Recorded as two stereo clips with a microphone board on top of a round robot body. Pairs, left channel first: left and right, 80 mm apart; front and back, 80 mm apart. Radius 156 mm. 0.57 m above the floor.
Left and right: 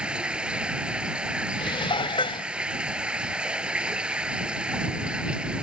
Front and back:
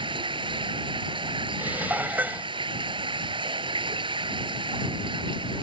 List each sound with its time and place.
0.0 s running water: 170° right
1.6 s dishes clattering: 110° left